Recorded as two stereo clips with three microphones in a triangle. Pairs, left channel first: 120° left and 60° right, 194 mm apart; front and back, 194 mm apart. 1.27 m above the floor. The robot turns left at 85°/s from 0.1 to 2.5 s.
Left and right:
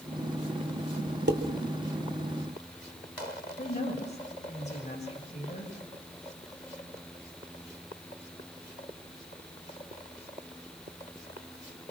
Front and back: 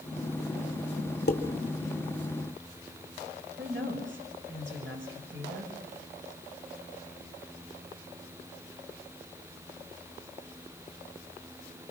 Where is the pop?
I don't hear a pop.